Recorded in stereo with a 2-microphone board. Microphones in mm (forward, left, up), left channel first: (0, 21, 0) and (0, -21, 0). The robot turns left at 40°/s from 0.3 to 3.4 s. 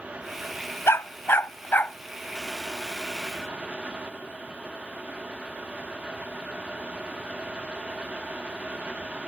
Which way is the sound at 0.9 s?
80° left.